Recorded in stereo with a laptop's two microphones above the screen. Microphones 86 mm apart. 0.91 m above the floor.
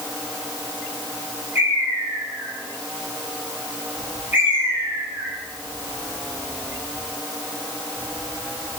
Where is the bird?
25° right (ahead or behind), 2.5 m.